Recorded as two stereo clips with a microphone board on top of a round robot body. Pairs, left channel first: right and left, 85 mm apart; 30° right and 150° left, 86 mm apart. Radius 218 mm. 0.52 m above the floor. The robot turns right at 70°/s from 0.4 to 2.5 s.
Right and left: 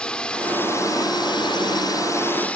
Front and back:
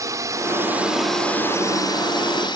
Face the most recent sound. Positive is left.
turn(degrees=-15)